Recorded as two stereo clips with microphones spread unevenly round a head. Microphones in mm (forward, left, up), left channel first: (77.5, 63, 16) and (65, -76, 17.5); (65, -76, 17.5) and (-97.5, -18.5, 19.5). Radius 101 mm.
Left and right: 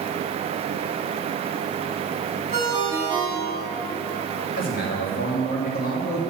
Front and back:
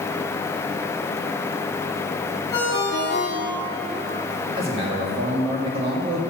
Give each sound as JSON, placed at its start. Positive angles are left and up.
{"t": 2.5, "sound": "a ringtone", "azimuth_deg": 55, "distance_m": 3.0}
{"t": 4.6, "sound": "a man speaking", "azimuth_deg": 100, "distance_m": 1.4}